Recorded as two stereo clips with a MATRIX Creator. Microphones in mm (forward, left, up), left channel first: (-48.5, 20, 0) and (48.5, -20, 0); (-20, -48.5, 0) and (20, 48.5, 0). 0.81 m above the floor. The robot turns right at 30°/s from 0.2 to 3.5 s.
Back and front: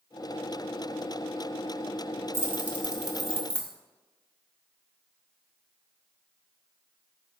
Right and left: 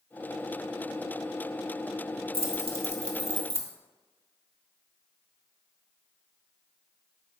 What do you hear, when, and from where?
2.3 s keys jangling: 40° left, 0.6 m; by 3.7 s 75° left, 0.6 m